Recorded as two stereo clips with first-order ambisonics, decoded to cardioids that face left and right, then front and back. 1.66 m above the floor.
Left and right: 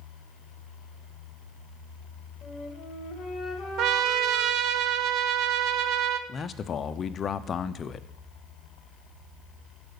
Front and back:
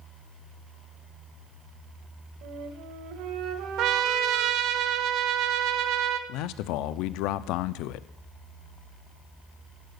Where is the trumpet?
135° right, 0.7 m.